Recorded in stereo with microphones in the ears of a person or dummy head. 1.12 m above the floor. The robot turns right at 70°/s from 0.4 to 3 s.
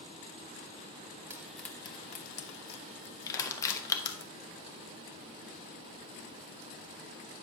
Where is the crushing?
20° left (ahead or behind), 1.0 m.